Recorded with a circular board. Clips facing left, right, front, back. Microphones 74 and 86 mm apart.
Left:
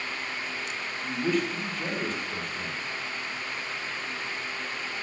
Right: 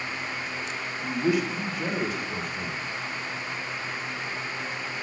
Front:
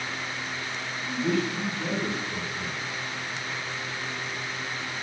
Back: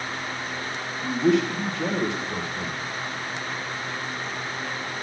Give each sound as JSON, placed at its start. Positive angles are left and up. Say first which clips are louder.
{"t": 1.0, "sound": "a man speaking", "louder": "right 2 dB, back 6 dB", "azimuth_deg": -170, "distance_m": 1.2}